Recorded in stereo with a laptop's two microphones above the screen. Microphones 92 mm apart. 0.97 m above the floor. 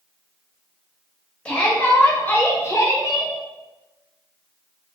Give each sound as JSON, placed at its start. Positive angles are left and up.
{"t": 1.4, "sound": "a shout", "side_deg": 15, "distance_m": 1.6}